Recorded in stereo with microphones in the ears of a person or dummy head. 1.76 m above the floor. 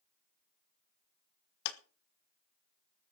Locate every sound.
1.6 s a clap: 65° left (ahead or behind), 1.5 m